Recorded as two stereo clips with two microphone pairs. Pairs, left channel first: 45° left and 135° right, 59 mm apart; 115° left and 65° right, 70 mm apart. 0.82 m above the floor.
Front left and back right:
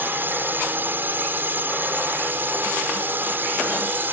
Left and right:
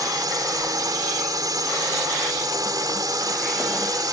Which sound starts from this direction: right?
A drone, at 0.0 s.